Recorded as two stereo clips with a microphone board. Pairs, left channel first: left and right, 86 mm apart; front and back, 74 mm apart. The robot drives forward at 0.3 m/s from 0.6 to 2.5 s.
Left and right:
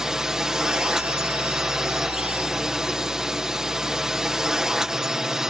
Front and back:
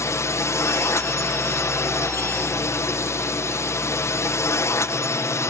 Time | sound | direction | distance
0.0 | a drone | 10° right | ?